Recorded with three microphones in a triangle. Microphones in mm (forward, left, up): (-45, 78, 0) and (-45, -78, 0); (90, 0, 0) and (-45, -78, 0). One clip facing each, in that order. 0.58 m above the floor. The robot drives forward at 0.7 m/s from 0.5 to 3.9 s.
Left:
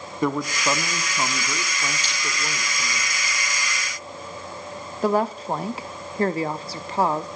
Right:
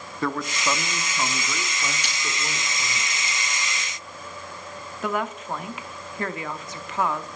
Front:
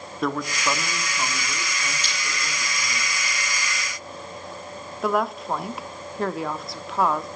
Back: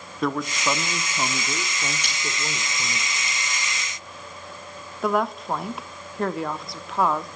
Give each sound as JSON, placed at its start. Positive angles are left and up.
{"t": 0.2, "sound": "a man speaking", "azimuth_deg": 120, "distance_m": 0.8}
{"t": 2.0, "sound": "breaking glass", "azimuth_deg": -120, "distance_m": 9.5}
{"t": 5.0, "sound": "a woman speaking", "azimuth_deg": 120, "distance_m": 0.7}